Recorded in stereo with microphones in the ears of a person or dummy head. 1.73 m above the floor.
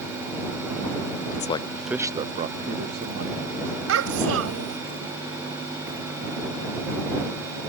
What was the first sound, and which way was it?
A man speaking, 40° left (ahead or behind).